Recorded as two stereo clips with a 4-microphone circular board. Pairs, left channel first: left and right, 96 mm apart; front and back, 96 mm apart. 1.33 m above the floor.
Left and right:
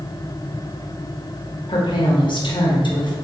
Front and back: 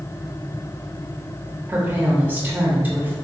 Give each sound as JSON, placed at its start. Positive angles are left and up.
{"t": 1.7, "sound": "a woman speaking", "azimuth_deg": 110, "distance_m": 1.0}